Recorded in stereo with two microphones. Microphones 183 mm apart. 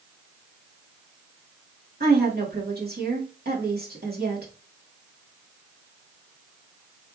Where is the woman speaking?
60° right (ahead or behind), 2 m.